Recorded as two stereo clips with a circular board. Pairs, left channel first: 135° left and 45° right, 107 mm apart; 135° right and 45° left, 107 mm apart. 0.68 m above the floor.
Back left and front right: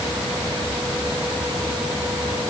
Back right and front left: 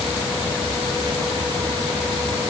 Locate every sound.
Only background noise.